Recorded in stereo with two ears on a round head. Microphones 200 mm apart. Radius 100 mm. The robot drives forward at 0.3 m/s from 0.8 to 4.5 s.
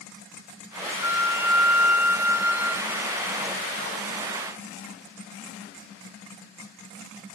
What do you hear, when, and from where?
1.0 s a flute: 10° right (ahead or behind), 0.6 m; by 3.2 s 5° right (ahead or behind), 1.1 m